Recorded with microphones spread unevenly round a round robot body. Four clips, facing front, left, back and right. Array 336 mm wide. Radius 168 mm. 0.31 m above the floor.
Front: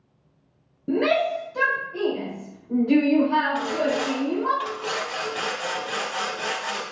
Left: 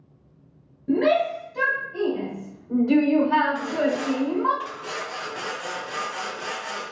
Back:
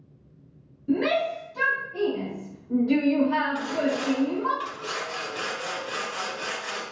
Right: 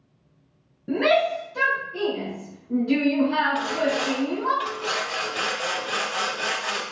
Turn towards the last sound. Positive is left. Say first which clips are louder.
# even, front 2 dB
turn(degrees=-45)